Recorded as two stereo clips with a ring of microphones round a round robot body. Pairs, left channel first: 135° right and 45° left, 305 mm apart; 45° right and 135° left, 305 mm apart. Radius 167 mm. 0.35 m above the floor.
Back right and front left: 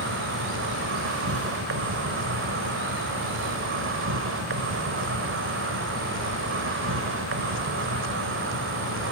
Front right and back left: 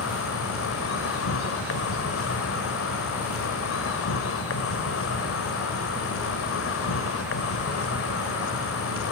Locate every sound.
0.0 s an insect: straight ahead, 0.9 m